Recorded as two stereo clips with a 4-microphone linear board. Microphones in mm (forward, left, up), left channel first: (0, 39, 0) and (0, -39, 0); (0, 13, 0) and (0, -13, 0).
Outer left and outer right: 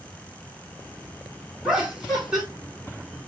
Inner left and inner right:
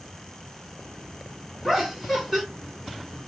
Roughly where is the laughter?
Centre.